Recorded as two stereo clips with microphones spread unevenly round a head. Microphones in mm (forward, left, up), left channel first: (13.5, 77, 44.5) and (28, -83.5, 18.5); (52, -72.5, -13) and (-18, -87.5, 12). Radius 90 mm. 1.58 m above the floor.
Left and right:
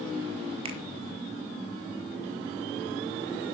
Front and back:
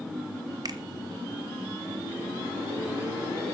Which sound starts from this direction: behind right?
A finger snap, at 0.7 s.